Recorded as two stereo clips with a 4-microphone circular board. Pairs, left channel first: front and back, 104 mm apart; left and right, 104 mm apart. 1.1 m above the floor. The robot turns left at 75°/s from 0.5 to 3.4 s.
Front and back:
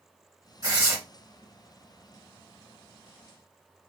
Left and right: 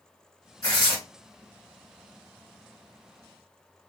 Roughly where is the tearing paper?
Behind left.